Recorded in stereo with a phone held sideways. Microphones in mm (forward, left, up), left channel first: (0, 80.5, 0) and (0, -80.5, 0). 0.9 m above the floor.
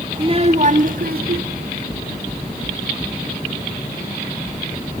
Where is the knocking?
20° left (ahead or behind), 5.5 m.